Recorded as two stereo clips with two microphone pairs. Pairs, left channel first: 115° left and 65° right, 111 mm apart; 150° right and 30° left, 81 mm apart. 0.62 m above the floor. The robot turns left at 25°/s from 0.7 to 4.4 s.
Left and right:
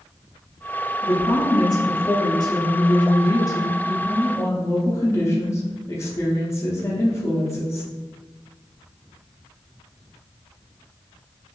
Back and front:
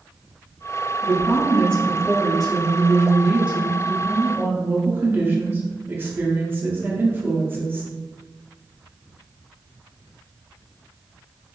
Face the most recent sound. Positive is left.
turn(degrees=70)